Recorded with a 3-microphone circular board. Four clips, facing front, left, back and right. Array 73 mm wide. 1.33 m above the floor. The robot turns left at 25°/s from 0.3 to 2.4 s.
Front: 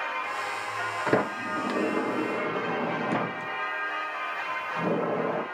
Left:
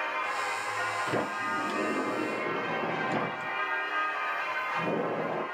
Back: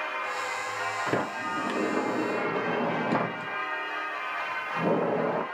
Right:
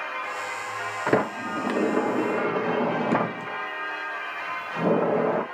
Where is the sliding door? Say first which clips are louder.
Right 6 dB, front 6 dB; 65° right, 0.7 m; by 5.4 s 100° right, 0.7 m.